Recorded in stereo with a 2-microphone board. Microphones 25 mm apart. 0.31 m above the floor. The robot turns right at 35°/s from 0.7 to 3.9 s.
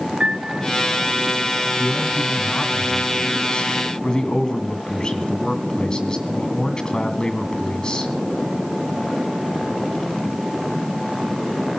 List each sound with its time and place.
0.2 s a piano: 60° right (ahead or behind), 1.3 m
1.8 s a man speaking: 70° left, 2 m; by 8.1 s 145° left, 2 m